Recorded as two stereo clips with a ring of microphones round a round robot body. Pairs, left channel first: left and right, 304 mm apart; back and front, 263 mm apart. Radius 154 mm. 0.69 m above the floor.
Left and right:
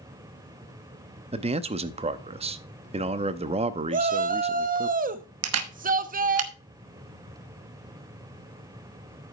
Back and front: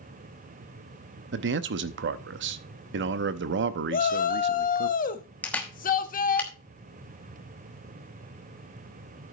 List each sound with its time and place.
1.3 s a man speaking: 25° right, 0.7 m
3.9 s a shout: 140° right, 1.0 m
5.4 s a camera shutter: 95° right, 1.2 m